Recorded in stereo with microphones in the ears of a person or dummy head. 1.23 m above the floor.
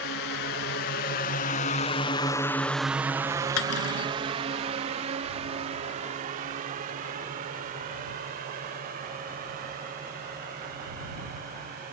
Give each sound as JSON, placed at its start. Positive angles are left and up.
{"t": 0.0, "sound": "a drone", "side_deg": 55}
{"t": 3.6, "sound": "cutlery clinking", "side_deg": 90}